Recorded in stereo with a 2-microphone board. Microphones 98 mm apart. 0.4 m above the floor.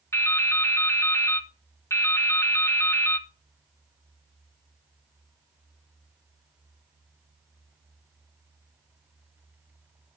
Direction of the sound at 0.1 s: 30° left (ahead or behind).